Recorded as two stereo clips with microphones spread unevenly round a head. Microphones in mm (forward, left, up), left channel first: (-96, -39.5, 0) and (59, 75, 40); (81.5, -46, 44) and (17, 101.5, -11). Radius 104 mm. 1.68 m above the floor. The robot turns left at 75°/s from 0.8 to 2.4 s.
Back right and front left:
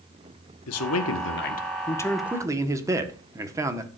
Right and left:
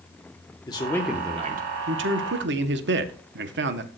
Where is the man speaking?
130° right, 1.3 m; by 3.9 s 110° left, 1.3 m.